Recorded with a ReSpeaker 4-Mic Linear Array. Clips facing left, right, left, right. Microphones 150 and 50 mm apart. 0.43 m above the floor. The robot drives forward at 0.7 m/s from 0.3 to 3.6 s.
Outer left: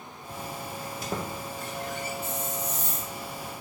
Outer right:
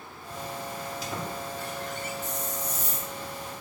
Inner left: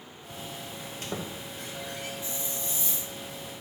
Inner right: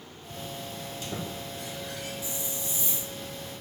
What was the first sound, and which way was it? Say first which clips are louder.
A squeak: outer left 3 dB, inner left 1 dB; 50° left (ahead or behind).